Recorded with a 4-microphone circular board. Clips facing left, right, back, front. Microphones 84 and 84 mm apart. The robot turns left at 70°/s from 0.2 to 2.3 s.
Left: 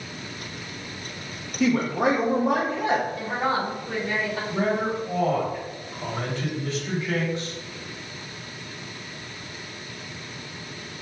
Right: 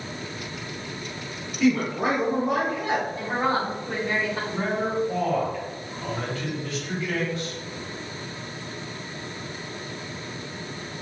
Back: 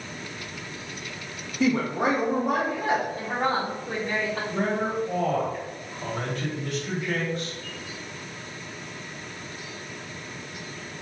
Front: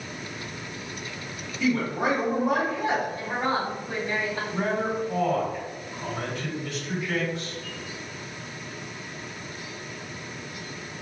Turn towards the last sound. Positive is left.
turn(degrees=150)